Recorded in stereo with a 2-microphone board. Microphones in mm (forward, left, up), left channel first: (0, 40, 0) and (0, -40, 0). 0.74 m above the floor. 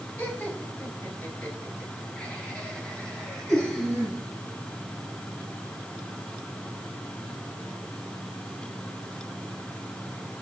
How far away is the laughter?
About 5.5 m.